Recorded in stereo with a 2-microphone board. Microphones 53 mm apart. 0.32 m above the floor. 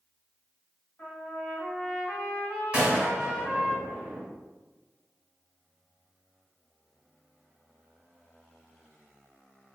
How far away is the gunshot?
About 0.9 m.